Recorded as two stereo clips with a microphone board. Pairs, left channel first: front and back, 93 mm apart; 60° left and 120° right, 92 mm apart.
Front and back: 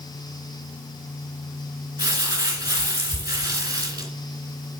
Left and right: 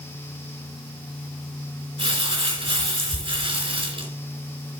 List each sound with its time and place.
2.0 s crumpling: 135° right, 3 m